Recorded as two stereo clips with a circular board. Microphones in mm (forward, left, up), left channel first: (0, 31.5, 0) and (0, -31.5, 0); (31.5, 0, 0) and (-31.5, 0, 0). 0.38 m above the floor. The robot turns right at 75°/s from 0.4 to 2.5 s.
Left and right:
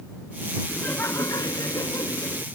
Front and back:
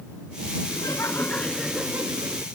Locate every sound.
0.7 s laughter: 20° left; by 2.5 s 150° left